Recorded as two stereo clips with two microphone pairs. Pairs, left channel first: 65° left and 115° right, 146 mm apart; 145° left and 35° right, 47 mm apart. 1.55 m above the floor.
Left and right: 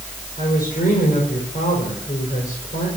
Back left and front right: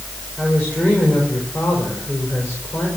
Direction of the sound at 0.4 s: 90° left.